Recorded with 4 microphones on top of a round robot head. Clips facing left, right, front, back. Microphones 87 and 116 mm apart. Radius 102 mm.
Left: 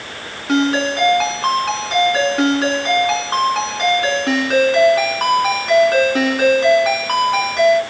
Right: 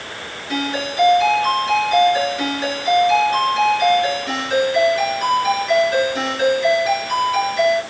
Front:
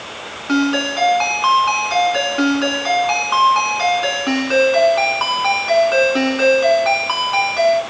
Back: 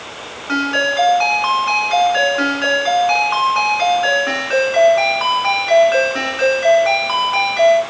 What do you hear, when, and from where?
0.5 s a ringtone: 65° left, 6.5 m